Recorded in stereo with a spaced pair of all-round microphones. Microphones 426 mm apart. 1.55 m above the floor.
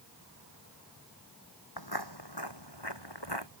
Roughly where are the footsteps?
Left.